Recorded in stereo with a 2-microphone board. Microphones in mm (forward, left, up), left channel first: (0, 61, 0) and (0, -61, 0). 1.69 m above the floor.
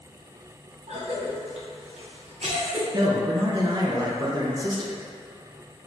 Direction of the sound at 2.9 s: 35° right (ahead or behind).